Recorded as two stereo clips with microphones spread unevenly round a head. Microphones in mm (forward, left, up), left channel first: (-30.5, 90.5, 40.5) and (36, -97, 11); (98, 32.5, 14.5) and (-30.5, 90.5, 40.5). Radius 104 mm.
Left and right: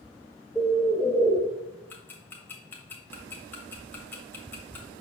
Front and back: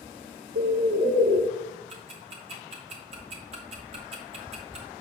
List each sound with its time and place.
0.6 s a bird: 165° right, 0.7 m
1.9 s ticking: straight behind, 1.2 m